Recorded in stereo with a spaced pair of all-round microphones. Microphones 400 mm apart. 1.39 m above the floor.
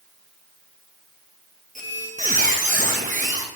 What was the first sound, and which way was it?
A squeak, 20° right (ahead or behind).